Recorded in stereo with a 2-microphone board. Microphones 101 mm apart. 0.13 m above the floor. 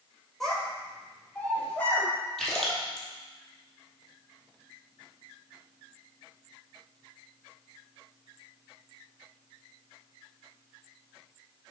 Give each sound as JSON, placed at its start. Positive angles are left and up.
{"t": 0.4, "sound": "a child speaking", "side_deg": 0, "distance_m": 3.0}
{"t": 2.4, "sound": "a splash", "side_deg": 5, "distance_m": 2.5}